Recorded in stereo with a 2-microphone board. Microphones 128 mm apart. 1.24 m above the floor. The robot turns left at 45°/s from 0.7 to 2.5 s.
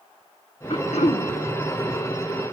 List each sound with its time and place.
0.7 s throat clearing: 50° left (ahead or behind), 0.6 m; by 1.3 s 75° left (ahead or behind), 0.6 m